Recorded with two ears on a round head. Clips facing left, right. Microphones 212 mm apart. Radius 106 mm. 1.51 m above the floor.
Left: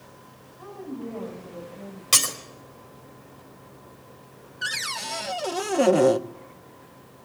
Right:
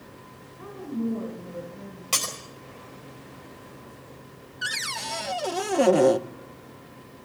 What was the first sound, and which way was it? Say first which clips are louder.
A woman speaking: right 5 dB; 45° right (ahead or behind).